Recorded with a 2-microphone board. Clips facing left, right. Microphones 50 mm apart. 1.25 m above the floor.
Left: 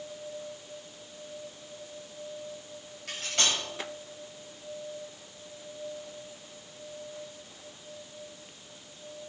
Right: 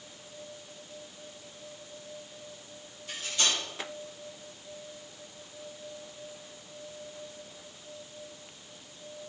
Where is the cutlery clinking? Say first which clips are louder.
Left 1 dB; 75° left (ahead or behind), 5 m.